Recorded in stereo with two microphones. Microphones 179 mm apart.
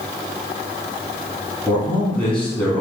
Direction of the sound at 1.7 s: 5° left (ahead or behind).